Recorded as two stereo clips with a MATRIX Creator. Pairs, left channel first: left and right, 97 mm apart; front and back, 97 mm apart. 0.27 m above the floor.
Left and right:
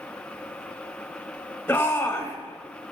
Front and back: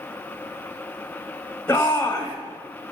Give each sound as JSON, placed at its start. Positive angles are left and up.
{"t": 1.7, "sound": "a shout", "azimuth_deg": 40, "distance_m": 1.1}